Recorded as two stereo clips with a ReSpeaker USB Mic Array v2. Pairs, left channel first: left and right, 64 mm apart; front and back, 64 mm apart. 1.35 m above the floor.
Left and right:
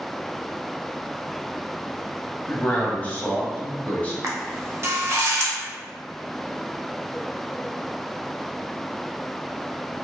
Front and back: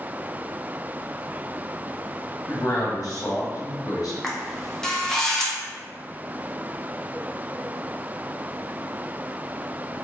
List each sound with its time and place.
2.5 s a man speaking: 25° left, 0.9 m
4.2 s a camera shutter: 80° right, 0.7 m